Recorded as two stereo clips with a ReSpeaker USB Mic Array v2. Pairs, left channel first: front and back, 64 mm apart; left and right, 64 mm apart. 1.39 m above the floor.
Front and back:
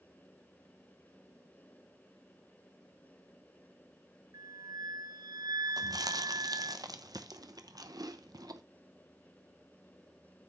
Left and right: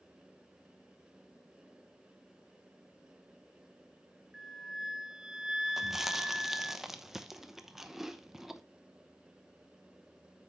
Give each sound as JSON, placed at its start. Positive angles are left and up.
{"t": 4.3, "sound": "a flute", "azimuth_deg": -170, "distance_m": 0.6}
{"t": 5.8, "sound": "chewing", "azimuth_deg": -175, "distance_m": 0.8}